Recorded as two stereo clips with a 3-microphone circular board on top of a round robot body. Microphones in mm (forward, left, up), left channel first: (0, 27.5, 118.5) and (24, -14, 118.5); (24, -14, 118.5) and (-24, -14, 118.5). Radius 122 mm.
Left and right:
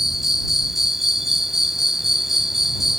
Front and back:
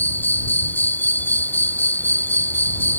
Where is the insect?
20° left.